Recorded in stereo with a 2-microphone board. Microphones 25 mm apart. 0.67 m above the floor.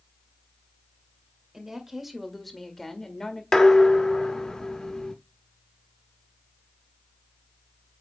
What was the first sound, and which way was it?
A woman speaking, 15° right (ahead or behind).